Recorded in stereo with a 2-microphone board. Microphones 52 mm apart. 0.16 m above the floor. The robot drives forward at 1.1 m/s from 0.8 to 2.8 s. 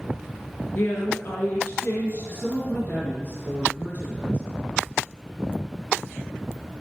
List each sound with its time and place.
0.8 s a woman speaking: 50° left (ahead or behind), 2.5 m; by 4.4 s 40° left (ahead or behind), 3 m